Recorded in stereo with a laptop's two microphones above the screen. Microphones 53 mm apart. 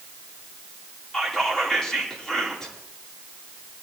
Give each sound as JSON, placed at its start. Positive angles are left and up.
{"t": 1.1, "sound": "whispering", "side_deg": 10, "distance_m": 2.0}